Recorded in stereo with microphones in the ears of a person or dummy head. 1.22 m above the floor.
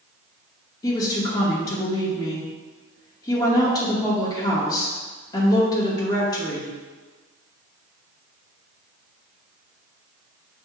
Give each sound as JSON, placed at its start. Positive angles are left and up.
{"t": 0.8, "sound": "a woman speaking", "side_deg": 20, "distance_m": 0.9}